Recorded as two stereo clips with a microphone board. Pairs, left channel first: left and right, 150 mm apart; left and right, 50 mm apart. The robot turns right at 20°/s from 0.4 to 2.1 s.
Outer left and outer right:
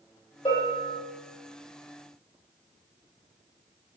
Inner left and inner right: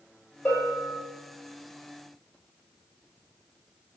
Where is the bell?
40° left (ahead or behind), 1.7 m; by 1.0 s 50° left (ahead or behind), 1.7 m.